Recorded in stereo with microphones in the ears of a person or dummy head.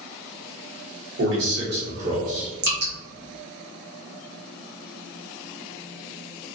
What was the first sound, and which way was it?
A man speaking, 65° right (ahead or behind).